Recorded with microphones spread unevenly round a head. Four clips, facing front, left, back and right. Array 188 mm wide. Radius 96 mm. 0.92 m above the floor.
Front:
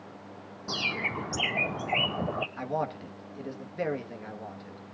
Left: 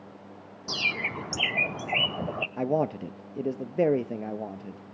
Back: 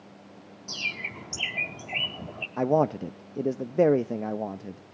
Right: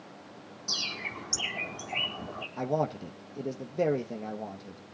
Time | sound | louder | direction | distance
0.7 | a bird | left 7 dB, front 6 dB | 35° left | 0.6 m
2.6 | a man speaking | left 3 dB, back 8 dB | 155° left | 0.8 m